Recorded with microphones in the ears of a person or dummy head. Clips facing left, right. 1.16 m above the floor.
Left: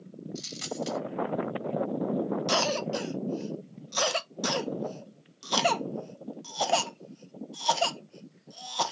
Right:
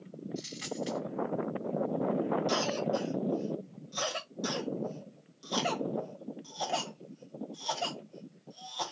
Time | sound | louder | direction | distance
0.3 | a dropped coin | left 3 dB | 60° left (ahead or behind) | 2 m
2.5 | a cough | left 2 dB | 75° left (ahead or behind) | 0.6 m